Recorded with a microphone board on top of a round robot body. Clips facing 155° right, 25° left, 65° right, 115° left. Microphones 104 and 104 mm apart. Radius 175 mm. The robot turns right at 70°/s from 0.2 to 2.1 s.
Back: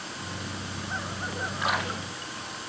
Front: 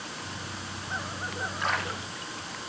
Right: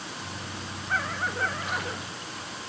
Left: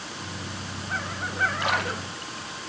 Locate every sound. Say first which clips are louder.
1.6 s a splash: back 2 dB, left 5 dB; 115° left, 3.5 m; by 2.5 s 150° left, 3.5 m